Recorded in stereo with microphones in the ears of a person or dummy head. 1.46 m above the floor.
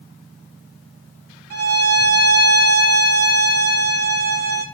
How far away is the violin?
About 0.6 m.